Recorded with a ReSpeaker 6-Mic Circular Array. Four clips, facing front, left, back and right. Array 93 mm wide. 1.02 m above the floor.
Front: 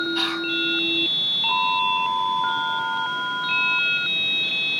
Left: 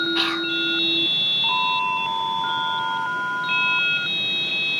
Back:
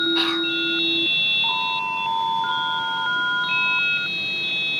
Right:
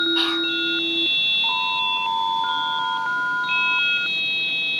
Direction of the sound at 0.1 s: 115° left.